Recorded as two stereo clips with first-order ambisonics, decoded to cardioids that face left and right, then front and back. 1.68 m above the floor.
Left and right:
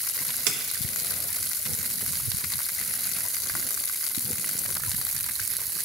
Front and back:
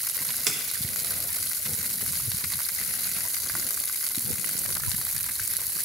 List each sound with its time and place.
0.5 s a splash: 115° right, 1.0 m